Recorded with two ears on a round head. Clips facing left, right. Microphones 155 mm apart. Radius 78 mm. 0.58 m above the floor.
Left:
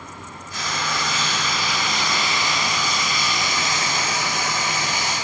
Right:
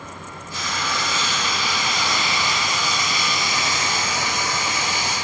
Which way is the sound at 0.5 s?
25° right (ahead or behind).